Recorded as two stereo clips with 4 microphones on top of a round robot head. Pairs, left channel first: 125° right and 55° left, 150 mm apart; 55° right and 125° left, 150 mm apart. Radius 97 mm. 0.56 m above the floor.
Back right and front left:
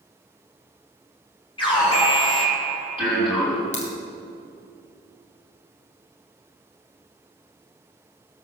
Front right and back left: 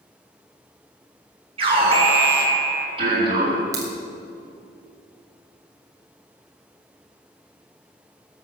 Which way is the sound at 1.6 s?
Straight behind.